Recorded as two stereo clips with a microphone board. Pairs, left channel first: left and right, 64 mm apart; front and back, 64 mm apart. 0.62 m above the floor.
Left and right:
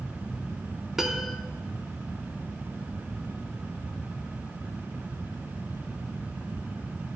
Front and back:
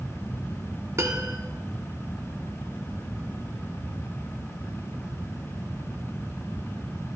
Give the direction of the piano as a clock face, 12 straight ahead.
6 o'clock.